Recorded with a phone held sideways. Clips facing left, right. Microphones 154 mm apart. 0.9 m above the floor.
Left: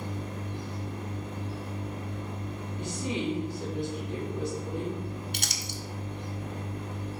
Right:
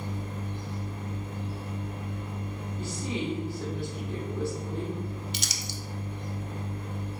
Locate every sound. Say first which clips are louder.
0.0 s a machine running: even; 70° left (ahead or behind), 1.9 m
2.8 s a woman speaking: left 1 dB; 20° left (ahead or behind), 2 m
5.3 s crumpling: even; 55° left (ahead or behind), 0.9 m